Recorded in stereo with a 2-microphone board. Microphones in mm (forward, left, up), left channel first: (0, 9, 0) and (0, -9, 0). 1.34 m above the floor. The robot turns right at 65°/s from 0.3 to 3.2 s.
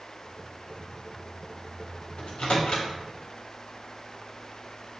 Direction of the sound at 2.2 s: 75° left (ahead or behind).